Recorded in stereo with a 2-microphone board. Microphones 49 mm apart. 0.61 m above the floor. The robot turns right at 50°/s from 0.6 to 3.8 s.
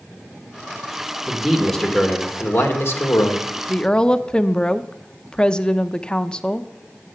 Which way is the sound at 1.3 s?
15° right.